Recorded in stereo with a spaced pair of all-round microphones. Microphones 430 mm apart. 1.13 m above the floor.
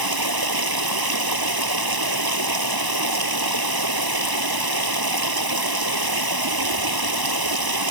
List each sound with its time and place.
0.0 s running water: 55° right (ahead or behind)